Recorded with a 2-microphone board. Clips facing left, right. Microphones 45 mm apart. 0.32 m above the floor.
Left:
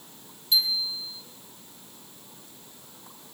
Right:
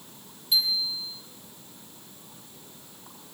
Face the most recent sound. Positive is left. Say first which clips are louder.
# even
turn(degrees=-10)  # may be behind; listen again after turning